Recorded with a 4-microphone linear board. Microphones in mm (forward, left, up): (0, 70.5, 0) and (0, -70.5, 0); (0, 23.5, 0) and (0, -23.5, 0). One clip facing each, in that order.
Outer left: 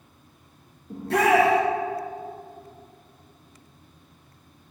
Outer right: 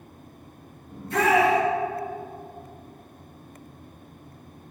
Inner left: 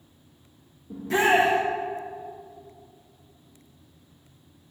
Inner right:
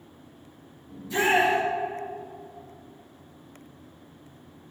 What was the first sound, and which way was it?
A shout, 75° left (ahead or behind).